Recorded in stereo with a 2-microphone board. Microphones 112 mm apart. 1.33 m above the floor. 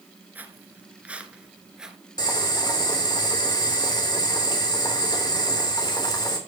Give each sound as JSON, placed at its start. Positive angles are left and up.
{"t": 0.3, "sound": "footsteps", "side_deg": -15, "distance_m": 1.3}
{"t": 2.2, "sound": "boiling", "side_deg": 40, "distance_m": 3.0}